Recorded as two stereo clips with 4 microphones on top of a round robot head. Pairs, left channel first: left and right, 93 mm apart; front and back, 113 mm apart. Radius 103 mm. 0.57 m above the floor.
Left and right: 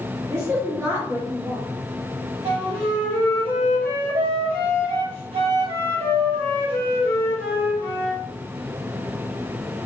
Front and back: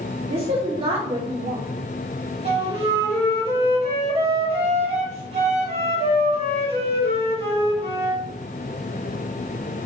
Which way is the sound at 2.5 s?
130° right.